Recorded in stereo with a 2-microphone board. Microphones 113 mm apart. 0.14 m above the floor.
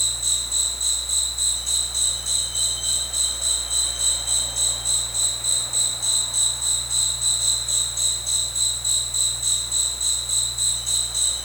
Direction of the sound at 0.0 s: Centre (ahead or behind).